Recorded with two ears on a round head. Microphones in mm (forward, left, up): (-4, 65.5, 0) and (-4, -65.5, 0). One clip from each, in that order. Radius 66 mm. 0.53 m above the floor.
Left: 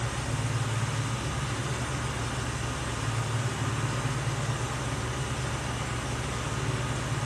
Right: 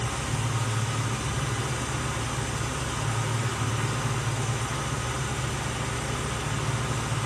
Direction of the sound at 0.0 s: 25° right (ahead or behind).